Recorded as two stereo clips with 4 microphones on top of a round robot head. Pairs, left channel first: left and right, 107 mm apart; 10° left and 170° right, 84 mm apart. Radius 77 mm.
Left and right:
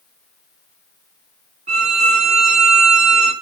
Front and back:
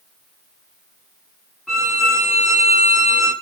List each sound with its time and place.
1.7 s a violin: 80° right, 2.5 m